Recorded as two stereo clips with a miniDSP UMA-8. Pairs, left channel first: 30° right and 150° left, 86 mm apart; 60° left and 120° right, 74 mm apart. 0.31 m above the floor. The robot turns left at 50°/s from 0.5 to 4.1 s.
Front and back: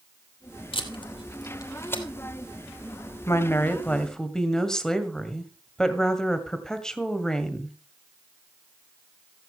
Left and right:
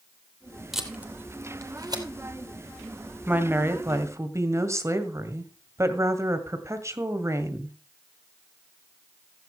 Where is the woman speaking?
70° right, 1.9 m; by 7.8 s 110° right, 1.9 m.